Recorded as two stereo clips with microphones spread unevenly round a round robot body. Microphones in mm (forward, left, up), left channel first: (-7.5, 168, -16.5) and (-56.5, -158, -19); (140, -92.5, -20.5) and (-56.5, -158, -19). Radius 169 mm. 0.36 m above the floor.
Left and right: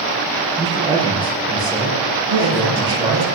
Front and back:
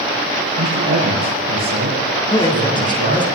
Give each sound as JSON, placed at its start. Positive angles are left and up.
{"t": 0.6, "sound": "a man speaking", "azimuth_deg": -175, "distance_m": 6.0}
{"t": 2.3, "sound": "a man speaking", "azimuth_deg": -50, "distance_m": 4.0}